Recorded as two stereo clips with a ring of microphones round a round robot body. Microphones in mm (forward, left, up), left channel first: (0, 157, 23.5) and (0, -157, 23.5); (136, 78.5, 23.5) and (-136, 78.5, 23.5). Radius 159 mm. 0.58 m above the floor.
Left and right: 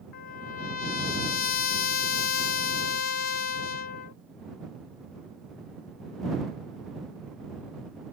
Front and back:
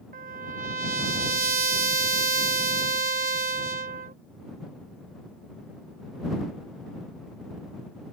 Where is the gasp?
I don't hear a gasp.